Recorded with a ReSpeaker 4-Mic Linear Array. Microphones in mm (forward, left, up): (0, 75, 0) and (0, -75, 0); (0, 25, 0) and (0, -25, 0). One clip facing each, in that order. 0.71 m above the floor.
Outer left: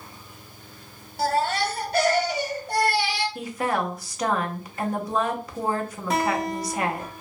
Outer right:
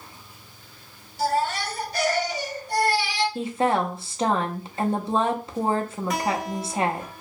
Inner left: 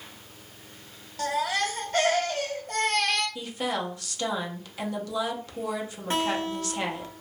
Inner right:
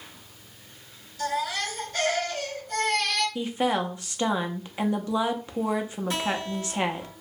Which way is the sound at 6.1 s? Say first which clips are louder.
Outer left 3 dB, inner left 3 dB; 30° left (ahead or behind).